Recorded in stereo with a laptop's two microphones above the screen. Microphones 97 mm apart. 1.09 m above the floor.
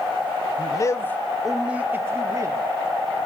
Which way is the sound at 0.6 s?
45° left (ahead or behind).